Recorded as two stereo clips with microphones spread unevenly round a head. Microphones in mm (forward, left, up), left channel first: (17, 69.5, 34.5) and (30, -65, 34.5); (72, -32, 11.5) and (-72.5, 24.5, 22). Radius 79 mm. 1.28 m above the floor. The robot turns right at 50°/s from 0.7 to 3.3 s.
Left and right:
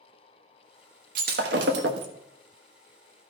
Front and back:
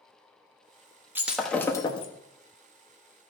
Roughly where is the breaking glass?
Behind right.